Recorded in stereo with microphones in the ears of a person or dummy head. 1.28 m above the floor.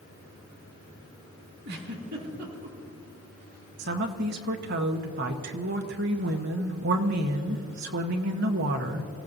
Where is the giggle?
50° right (ahead or behind), 2.5 m.